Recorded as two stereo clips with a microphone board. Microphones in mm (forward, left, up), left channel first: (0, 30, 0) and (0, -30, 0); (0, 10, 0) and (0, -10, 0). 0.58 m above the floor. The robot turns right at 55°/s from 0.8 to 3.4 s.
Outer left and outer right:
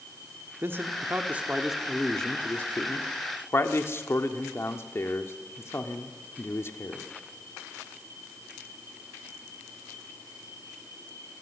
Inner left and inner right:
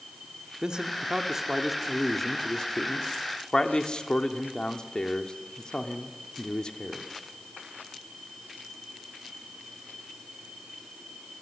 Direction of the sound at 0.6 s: 40° right (ahead or behind).